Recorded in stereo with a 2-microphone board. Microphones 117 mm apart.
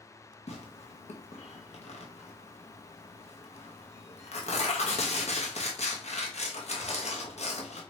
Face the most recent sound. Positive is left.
turn(degrees=70)  # may be behind; listen again after turning